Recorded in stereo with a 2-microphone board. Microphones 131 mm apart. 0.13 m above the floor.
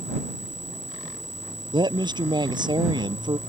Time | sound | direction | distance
1.7 | a woman speaking | 30° right (ahead or behind) | ?